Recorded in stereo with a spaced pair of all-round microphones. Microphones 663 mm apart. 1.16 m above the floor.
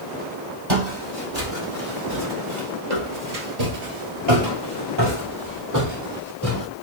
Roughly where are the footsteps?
Right.